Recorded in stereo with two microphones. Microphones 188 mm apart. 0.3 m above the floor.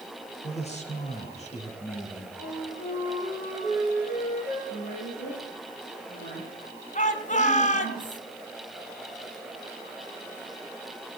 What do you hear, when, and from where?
0.4 s a man speaking: 40° left (ahead or behind), 6 m
2.4 s a flute: 45° left (ahead or behind), 5.5 m
4.7 s a woman speaking: 75° left (ahead or behind), 8.5 m
7.0 s a shout: 45° left (ahead or behind), 2.5 m